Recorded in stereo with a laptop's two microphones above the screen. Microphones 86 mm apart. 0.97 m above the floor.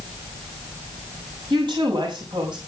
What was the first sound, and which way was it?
A woman speaking, 65° right (ahead or behind).